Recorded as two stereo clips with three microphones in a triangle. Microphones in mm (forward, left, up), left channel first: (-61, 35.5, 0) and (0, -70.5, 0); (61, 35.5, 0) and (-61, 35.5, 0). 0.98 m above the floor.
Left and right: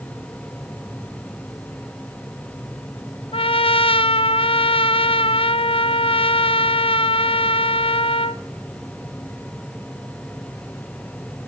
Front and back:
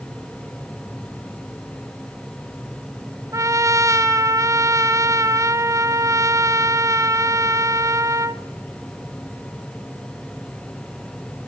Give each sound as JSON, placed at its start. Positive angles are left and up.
{"t": 3.3, "sound": "a trumpet", "azimuth_deg": 125, "distance_m": 0.6}